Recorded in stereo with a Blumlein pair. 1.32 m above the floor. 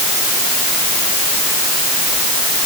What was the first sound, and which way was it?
Only background noise.